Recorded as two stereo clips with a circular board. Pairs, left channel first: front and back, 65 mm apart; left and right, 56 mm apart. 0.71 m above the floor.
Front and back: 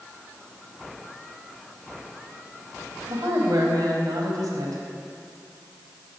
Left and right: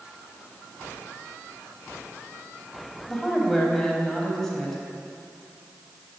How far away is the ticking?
I don't hear ticking.